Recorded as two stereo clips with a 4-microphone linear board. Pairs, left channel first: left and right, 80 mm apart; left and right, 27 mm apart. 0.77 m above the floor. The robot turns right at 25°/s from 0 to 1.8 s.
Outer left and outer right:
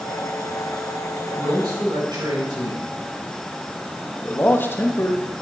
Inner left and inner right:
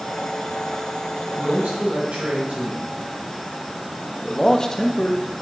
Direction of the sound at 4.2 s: 30° left (ahead or behind).